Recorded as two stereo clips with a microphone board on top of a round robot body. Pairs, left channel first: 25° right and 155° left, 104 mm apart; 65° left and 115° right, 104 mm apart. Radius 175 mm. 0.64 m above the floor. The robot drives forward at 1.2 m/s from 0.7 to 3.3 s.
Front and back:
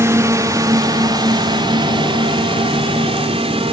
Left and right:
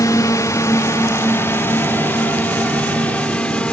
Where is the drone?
110° left; by 3.7 s 145° left.